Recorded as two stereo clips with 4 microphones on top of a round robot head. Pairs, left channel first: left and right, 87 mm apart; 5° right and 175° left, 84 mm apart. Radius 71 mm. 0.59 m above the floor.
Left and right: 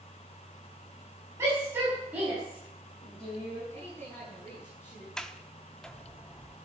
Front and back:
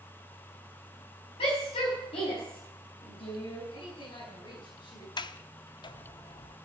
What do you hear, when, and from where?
1.4 s a shout: 25° right, 5.5 m; by 3.6 s 10° left, 6 m
3.7 s a woman speaking: 20° left, 6 m
5.2 s a sliding door: 10° left, 0.8 m